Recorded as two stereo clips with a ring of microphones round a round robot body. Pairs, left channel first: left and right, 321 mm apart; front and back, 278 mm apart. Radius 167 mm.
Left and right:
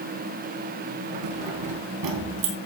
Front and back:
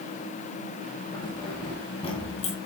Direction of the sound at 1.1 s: 80° right.